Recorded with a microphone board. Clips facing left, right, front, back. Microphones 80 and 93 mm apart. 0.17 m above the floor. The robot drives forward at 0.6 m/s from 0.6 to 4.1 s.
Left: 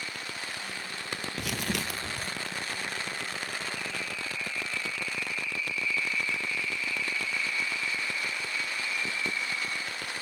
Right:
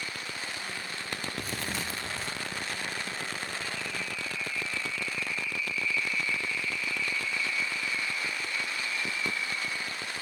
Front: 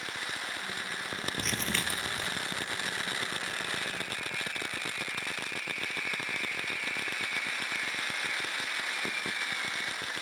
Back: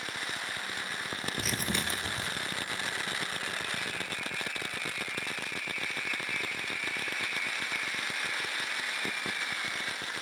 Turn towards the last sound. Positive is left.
turn(degrees=155)